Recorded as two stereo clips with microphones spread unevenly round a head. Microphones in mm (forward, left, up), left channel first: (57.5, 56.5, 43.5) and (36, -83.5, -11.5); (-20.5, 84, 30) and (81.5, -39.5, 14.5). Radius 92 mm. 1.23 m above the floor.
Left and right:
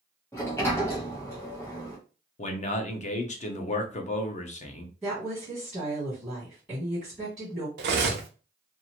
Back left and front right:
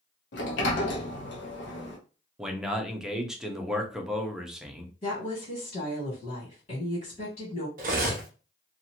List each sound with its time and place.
0.3 s a sliding door: 160° left, 0.7 m
2.4 s a man speaking: 35° left, 0.8 m
5.0 s a woman speaking: straight behind, 1.4 m
7.8 s cutlery clinking: 95° right, 0.7 m